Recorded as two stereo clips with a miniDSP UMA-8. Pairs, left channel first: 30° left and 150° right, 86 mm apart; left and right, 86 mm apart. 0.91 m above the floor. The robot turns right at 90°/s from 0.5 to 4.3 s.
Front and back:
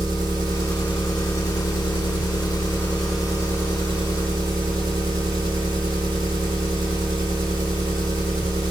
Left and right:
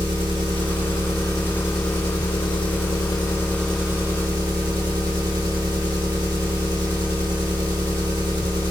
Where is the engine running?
110° right, 1.8 m; by 8.7 s 125° right, 1.8 m.